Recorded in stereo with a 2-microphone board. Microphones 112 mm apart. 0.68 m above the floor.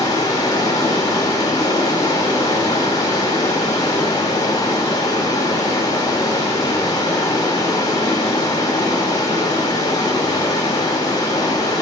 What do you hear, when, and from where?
0.0 s running water: 35° left (ahead or behind), 1.2 m